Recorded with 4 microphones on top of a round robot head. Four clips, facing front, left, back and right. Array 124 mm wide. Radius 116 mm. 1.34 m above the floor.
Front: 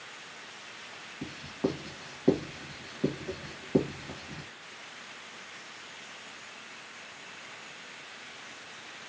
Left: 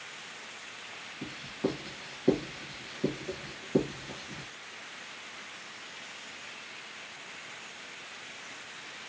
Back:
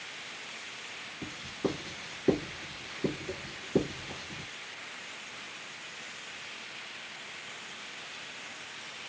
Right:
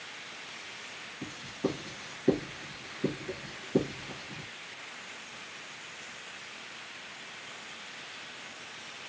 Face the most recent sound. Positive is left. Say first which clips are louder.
# even, front 2 dB
turn(degrees=10)